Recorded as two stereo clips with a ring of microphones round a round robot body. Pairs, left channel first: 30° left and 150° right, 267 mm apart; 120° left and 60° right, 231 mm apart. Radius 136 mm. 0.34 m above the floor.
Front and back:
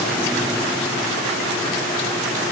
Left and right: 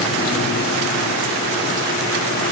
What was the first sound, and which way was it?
Only background noise.